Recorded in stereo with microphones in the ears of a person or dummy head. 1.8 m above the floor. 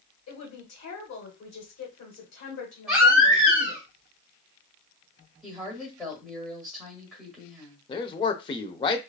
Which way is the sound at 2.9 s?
10° right (ahead or behind).